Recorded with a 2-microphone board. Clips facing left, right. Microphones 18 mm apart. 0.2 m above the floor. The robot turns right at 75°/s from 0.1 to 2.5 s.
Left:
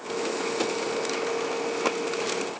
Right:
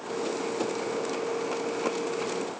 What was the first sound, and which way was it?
Only background noise.